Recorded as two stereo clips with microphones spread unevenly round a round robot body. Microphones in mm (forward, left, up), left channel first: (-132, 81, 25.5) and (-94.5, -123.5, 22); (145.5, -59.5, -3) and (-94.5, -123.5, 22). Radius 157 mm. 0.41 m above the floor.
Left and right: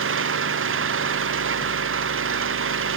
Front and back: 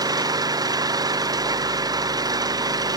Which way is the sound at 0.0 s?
90° right.